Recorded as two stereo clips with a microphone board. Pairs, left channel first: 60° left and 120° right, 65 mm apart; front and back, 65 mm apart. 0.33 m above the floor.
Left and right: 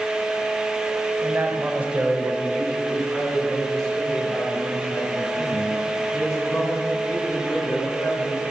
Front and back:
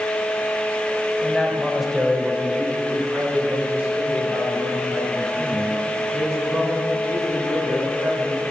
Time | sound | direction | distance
1.2 | a man speaking | 80° right | 1.1 m